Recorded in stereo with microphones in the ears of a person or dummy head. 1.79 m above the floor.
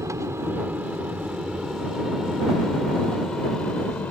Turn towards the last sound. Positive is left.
turn(degrees=10)  # may be behind; listen again after turning